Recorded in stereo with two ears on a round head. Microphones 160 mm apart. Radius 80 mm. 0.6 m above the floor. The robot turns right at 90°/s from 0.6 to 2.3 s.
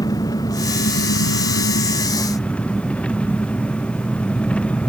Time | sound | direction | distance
0.0 | an engine running | 20° left | ?